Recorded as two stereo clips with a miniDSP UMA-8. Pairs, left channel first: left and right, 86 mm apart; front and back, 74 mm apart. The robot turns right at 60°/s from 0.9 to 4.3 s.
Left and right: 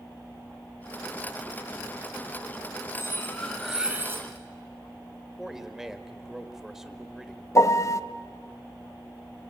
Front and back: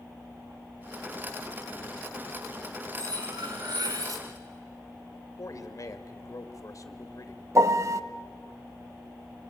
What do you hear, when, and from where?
3.0 s cutlery clinking: 140° left, 3 m; by 4.3 s 140° right, 3 m
5.4 s a man speaking: 5° right, 1.6 m
7.5 s a piano: 140° left, 0.7 m